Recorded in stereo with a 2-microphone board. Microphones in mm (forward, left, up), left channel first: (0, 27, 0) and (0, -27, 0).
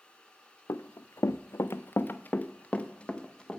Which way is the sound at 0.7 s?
75° left (ahead or behind).